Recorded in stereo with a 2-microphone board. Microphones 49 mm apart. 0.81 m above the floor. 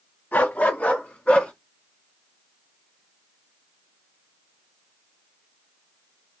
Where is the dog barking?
35° left (ahead or behind), 1.5 m; by 1.5 s 20° left (ahead or behind), 3 m.